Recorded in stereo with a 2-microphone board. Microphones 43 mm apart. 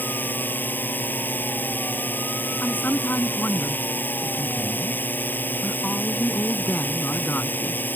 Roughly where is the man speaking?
Left.